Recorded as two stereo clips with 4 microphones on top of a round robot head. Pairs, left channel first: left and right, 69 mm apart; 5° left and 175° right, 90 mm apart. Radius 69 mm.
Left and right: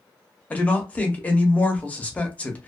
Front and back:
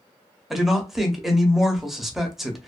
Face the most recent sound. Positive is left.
turn(degrees=105)